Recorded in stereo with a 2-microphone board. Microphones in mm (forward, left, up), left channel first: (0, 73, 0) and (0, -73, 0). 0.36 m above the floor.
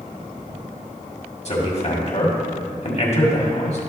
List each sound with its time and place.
1.4 s a man speaking: 50° left (ahead or behind), 1.8 m